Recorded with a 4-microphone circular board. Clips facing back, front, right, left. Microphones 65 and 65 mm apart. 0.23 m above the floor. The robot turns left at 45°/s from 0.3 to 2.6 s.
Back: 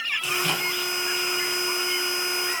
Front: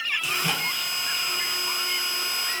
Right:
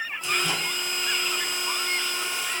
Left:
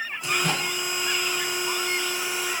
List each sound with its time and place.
0.2 s a microwave: 80° left, 1.6 m; by 0.7 s 60° left, 1.6 m